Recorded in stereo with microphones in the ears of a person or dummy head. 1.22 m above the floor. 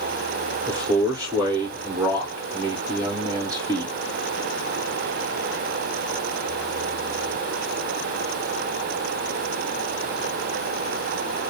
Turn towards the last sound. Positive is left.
turn(degrees=-15)  # may be behind; listen again after turning